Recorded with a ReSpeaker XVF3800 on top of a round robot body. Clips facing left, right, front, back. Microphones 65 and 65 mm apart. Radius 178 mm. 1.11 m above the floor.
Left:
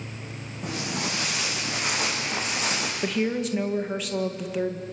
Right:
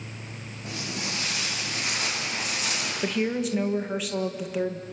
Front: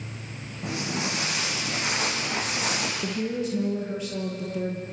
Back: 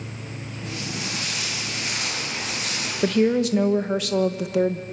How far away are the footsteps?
About 7 m.